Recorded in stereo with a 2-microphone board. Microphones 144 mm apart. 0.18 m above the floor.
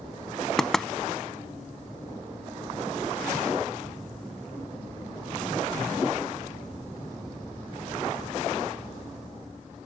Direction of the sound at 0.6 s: 5° left (ahead or behind).